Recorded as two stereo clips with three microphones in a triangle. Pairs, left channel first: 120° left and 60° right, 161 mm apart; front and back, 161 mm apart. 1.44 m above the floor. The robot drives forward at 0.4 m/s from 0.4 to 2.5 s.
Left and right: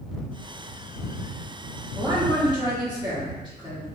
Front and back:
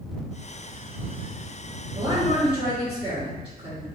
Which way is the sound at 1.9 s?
120° right.